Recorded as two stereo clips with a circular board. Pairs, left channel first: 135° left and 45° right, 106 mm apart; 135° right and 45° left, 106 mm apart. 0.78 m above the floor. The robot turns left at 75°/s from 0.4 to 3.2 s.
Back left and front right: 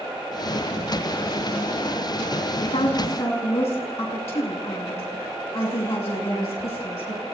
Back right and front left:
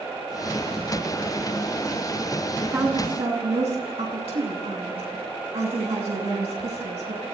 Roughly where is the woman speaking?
Behind left.